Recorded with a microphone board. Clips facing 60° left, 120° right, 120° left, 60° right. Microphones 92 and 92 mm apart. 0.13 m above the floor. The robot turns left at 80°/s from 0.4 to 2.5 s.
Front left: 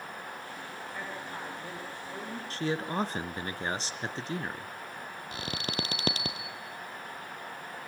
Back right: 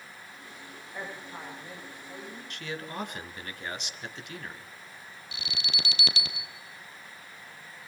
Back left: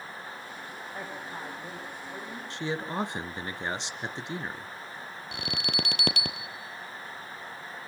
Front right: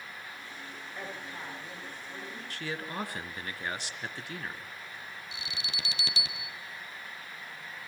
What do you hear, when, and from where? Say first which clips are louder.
0.9 s a woman speaking: back right 1 dB, back left 2 dB; 165° left, 9.5 m; by 2.4 s 50° left, 9.5 m
2.5 s a man speaking: front left 7 dB, back left 6 dB; 75° left, 1.3 m
5.3 s an alarm: front left 3 dB, back left 10 dB; 100° left, 1.9 m